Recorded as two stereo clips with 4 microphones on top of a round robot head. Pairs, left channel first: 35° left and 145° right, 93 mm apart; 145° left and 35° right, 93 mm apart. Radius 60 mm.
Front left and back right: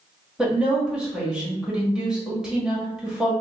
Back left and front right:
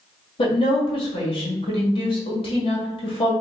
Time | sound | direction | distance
0.4 | a woman speaking | 135° left | 1.5 m